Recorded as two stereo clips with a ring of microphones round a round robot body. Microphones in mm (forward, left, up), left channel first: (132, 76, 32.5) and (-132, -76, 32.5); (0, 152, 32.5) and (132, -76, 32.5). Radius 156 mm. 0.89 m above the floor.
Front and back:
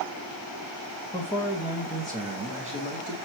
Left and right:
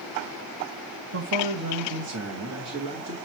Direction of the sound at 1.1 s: 45° right.